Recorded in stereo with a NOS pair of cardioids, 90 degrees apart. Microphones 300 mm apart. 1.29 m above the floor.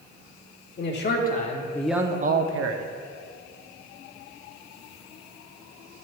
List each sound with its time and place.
0.8 s a man speaking: 40° left, 1.4 m; by 2.9 s 75° right, 0.9 m